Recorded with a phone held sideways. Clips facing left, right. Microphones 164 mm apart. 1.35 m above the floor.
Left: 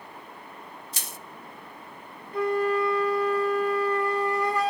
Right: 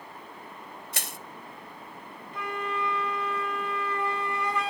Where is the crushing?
65° right (ahead or behind), 0.6 m.